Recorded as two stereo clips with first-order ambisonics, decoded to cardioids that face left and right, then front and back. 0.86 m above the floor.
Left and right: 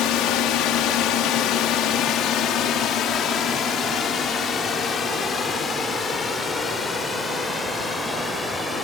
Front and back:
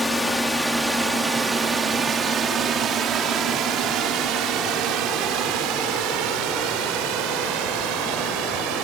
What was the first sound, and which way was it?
A drone, 80° left.